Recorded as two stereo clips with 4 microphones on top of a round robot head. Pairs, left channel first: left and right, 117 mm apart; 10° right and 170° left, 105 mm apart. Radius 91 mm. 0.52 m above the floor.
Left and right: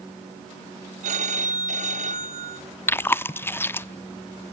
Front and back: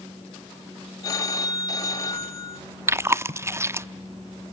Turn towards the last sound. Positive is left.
turn(degrees=140)